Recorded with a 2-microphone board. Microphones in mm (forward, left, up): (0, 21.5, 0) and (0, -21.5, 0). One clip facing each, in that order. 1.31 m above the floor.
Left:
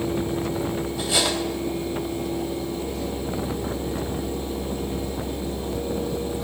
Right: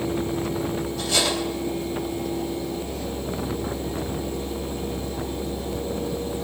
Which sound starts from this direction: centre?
Cutlery clinking, at 1.0 s.